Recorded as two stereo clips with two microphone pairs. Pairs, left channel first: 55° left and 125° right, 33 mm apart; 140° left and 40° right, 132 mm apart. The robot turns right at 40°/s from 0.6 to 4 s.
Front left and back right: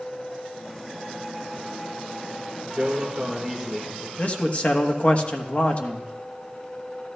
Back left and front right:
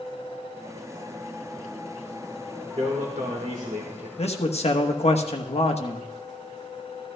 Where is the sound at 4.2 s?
100° left, 1.0 m.